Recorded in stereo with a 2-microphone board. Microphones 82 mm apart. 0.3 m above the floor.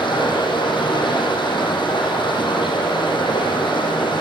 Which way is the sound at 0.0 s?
80° left.